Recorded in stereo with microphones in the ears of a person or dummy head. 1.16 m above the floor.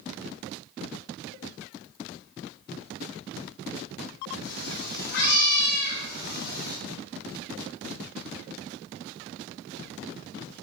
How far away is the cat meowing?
About 7.5 m.